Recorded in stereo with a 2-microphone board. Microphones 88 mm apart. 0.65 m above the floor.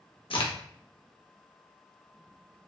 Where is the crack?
85° left, 0.5 m.